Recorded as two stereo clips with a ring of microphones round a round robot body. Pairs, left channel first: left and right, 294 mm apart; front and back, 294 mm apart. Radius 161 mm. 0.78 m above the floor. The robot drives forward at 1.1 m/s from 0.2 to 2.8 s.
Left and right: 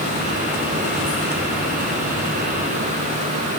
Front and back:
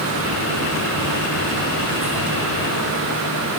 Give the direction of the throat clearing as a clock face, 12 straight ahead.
No throat clearing in this recording.